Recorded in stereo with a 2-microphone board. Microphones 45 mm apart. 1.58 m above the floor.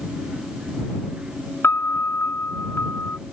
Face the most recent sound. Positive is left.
turn(degrees=60)  # may be behind; listen again after turning